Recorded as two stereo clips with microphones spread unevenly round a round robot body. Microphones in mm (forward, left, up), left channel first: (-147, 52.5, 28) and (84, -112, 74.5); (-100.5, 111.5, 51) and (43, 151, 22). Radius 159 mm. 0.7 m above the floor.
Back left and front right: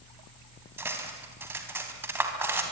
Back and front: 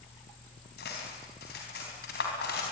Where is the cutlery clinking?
120° right, 3.5 m.